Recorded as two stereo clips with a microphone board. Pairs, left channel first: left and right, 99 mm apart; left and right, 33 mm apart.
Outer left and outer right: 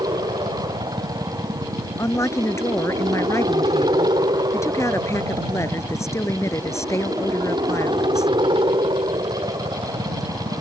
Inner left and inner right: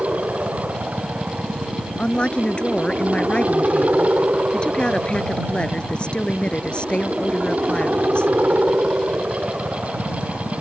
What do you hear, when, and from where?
0.0 s a helicopter: 55° right (ahead or behind)
2.0 s a woman speaking: 30° left (ahead or behind)